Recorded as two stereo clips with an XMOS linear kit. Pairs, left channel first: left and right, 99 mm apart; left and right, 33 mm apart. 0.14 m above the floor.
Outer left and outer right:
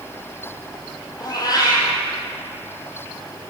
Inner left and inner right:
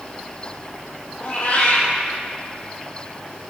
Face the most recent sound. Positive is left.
turn(degrees=40)  # may be behind; listen again after turning